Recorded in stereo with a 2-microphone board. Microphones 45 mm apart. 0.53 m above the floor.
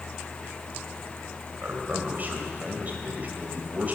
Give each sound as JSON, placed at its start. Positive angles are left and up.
{"t": 1.6, "sound": "a man speaking", "side_deg": -40, "distance_m": 2.5}